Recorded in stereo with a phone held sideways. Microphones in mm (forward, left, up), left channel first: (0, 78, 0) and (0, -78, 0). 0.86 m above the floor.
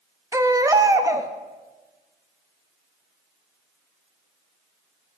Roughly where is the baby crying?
Centre.